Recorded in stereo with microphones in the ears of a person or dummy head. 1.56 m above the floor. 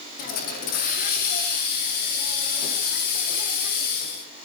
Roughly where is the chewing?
No chewing in this recording.